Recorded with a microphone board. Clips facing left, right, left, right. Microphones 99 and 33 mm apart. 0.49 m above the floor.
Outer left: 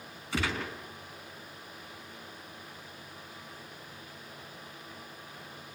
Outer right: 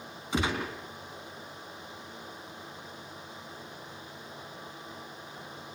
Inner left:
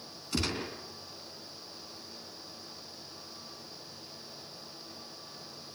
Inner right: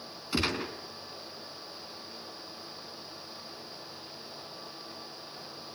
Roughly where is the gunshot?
Right.